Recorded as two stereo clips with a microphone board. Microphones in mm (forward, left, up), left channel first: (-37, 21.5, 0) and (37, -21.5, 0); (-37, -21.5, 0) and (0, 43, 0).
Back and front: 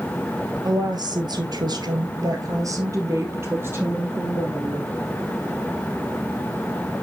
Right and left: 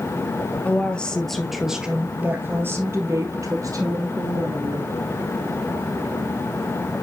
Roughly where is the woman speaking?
Ahead right.